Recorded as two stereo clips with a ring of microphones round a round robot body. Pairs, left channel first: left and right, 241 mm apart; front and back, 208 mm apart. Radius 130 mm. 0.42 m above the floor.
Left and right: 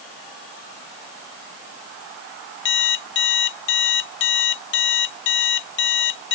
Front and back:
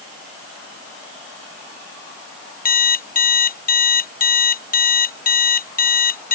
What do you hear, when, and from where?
2.6 s an alarm clock: 45° left